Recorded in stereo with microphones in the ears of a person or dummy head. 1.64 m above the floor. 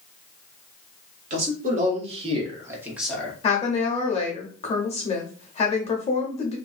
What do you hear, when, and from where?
1.3 s a man speaking: 45° right (ahead or behind), 1.4 m; by 3.3 s 15° left (ahead or behind), 0.8 m
3.4 s a woman speaking: 30° left (ahead or behind), 0.6 m